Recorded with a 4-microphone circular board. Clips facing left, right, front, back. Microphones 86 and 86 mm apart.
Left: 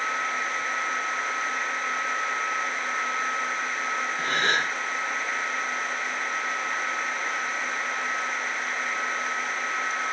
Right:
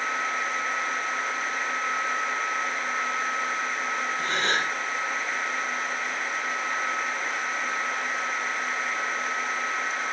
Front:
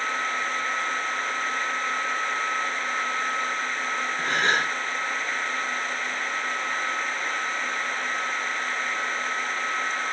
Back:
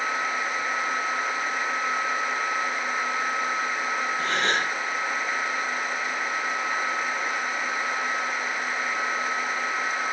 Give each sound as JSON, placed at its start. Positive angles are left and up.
{"t": 4.2, "sound": "a gasp", "azimuth_deg": 45, "distance_m": 8.5}